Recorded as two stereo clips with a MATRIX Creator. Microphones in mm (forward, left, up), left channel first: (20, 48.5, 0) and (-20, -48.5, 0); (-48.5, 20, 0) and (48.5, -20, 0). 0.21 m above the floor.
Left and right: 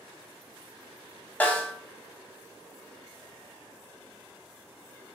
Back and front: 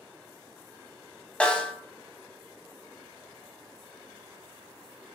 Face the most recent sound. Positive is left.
turn(degrees=100)